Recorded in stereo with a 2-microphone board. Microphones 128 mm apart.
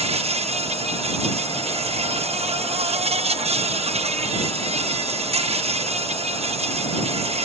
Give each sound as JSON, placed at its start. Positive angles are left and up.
{"t": 0.0, "sound": "an insect", "side_deg": -55}